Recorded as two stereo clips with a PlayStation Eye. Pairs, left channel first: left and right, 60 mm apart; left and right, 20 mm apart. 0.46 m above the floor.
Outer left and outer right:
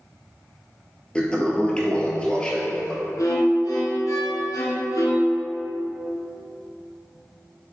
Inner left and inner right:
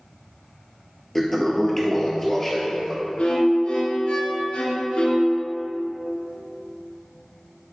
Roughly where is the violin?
Left.